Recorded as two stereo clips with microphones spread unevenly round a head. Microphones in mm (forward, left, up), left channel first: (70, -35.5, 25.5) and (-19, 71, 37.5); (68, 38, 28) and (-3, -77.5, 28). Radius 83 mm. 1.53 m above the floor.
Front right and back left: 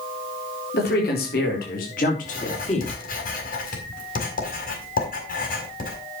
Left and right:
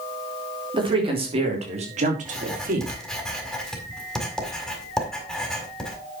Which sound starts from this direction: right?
A man speaking, at 0.7 s.